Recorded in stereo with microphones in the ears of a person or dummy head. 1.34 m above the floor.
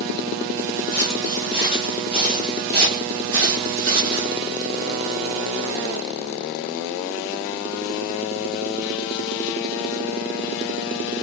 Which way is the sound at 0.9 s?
10° left (ahead or behind).